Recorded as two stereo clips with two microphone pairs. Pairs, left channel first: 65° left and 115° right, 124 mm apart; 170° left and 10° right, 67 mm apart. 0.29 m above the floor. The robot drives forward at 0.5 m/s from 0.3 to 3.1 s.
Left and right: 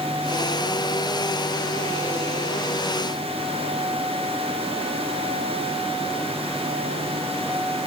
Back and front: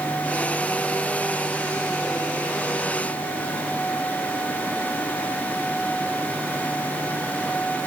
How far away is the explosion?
No explosion in this recording.